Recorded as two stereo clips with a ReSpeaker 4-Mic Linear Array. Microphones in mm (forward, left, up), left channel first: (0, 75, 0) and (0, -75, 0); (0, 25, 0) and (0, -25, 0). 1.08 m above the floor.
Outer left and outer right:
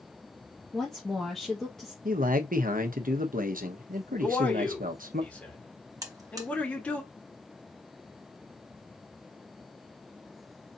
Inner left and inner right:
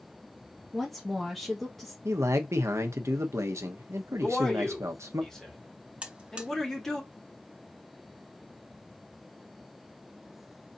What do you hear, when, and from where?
0.7 s a woman speaking: 5° left (ahead or behind), 1.2 m
2.0 s a man speaking: 70° right (ahead or behind), 1.0 m
4.2 s a man speaking: 10° left (ahead or behind), 2.5 m
6.0 s a buzzer: 25° right (ahead or behind), 1.0 m